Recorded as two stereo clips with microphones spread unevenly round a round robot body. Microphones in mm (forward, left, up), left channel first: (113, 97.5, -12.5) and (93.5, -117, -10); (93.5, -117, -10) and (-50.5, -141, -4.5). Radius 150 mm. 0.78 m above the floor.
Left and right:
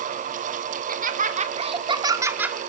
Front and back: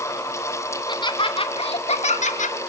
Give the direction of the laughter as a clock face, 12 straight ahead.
2 o'clock.